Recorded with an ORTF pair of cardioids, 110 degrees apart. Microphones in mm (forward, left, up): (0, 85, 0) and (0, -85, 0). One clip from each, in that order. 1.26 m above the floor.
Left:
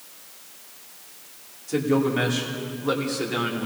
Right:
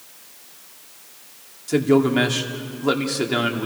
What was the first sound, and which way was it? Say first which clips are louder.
A man speaking: right 5 dB; 40° right.